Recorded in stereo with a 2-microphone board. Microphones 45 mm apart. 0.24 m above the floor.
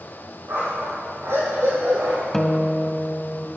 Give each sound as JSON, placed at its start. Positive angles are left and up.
{"t": 0.5, "sound": "a dog barking", "side_deg": -75, "distance_m": 3.5}
{"t": 2.3, "sound": "a guitar", "side_deg": 10, "distance_m": 0.6}